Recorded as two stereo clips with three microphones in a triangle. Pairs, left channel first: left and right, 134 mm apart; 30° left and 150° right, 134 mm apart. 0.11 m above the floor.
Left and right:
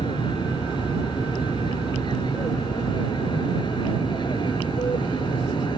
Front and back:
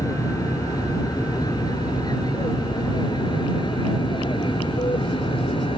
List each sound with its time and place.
0.0 s an aircraft: 75° left; by 5.8 s 55° left